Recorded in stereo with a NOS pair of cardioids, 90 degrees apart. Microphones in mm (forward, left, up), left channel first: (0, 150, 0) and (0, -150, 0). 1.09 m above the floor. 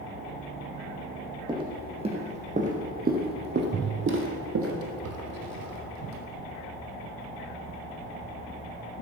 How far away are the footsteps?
About 3.5 m.